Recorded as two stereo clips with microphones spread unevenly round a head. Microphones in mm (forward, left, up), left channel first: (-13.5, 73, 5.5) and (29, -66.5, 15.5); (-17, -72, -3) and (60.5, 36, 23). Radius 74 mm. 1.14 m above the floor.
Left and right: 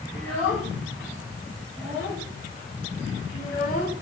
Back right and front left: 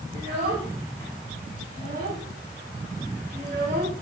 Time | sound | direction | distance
0.1 | a child speaking | 85° left | 3 m